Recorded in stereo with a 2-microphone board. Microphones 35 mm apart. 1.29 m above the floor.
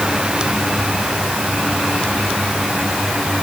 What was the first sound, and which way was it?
Only background noise.